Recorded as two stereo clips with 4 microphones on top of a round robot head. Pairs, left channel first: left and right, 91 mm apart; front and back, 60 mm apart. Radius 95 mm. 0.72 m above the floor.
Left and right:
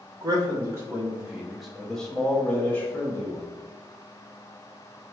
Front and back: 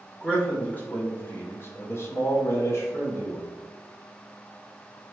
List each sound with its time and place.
0.2 s a man speaking: 70° right, 1.1 m; by 3.5 s 35° left, 1.7 m